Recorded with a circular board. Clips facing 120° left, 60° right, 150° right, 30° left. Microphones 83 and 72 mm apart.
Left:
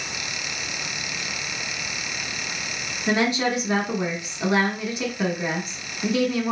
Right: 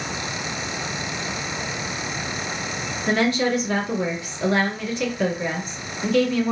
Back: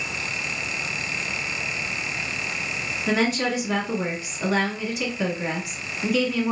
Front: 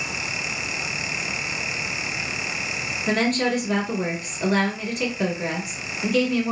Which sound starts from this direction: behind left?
A woman speaking, at 3.1 s.